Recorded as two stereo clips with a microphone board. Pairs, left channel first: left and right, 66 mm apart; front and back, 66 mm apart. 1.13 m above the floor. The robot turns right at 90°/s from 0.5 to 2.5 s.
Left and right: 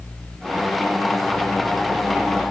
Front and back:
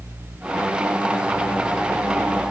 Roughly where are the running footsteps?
No running footsteps in this recording.